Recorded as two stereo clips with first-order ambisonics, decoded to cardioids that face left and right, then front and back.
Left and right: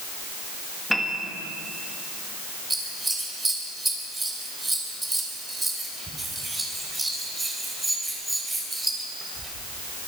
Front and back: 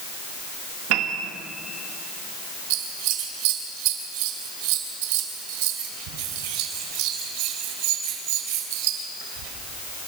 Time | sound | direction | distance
0.9 | a piano | 175° left | 2 m
2.7 | scissors | 170° right | 3.5 m